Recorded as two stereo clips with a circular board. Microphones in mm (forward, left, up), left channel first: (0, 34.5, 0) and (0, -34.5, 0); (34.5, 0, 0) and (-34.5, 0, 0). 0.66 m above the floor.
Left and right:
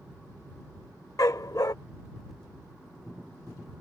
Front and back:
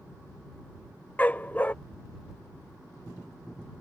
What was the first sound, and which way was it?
A dog barking, 65° left.